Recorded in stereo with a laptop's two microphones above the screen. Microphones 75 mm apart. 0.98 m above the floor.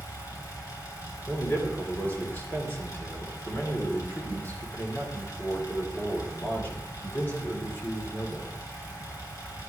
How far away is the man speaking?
About 2.5 m.